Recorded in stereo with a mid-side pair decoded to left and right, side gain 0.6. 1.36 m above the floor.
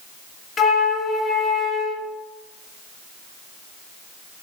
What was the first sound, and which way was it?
A flute, 30° left.